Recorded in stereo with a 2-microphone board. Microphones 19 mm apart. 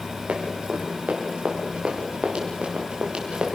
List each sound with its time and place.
0.3 s running footsteps: 75° right (ahead or behind), 6 m; by 3.5 s 55° right (ahead or behind), 5 m